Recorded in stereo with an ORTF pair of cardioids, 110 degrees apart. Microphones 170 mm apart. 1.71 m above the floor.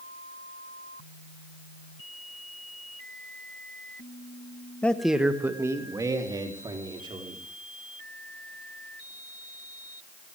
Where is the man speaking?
10° left, 1.3 m; by 7.4 s 30° right, 5 m.